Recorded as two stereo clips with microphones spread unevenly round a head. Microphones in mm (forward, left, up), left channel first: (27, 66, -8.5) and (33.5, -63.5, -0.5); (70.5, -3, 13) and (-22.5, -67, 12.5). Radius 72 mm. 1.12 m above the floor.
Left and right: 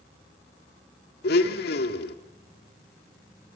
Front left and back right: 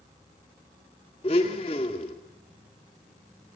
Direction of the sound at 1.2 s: 90° left.